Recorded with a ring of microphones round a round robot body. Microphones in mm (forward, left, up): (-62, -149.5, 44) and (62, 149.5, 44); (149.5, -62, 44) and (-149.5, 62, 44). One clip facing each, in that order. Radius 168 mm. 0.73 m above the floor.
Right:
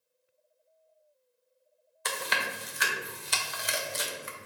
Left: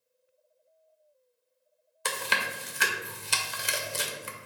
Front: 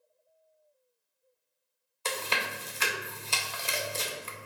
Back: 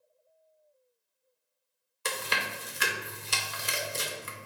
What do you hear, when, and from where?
2.0 s chewing: 95° left, 0.6 m